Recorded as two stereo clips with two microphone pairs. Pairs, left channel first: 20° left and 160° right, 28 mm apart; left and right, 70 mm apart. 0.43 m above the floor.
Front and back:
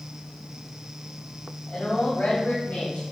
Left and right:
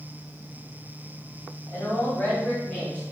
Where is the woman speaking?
40° left, 3 m; by 3.0 s 20° left, 4 m.